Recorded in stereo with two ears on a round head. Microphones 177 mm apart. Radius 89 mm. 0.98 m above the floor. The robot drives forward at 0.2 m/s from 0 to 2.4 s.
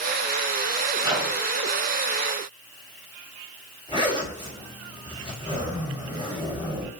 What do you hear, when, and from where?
1.0 s a microwave: 20° right (ahead or behind), 0.9 m
3.9 s a zipper: 25° right (ahead or behind), 1.5 m